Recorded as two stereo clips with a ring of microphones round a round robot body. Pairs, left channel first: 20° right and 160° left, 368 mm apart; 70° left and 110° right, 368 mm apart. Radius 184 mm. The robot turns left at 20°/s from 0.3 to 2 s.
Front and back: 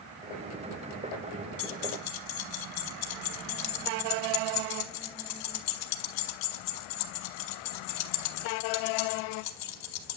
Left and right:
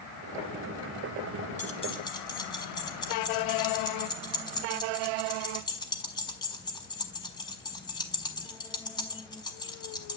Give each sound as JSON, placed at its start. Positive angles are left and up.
{"t": 1.6, "sound": "keys jangling", "azimuth_deg": -5, "distance_m": 1.2}